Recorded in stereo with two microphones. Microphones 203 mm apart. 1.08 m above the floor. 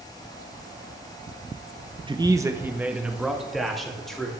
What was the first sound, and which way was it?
A man speaking, 25° right (ahead or behind).